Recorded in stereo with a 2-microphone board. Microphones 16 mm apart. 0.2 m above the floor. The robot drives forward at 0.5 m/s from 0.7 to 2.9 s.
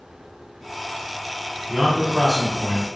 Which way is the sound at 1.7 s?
30° right (ahead or behind).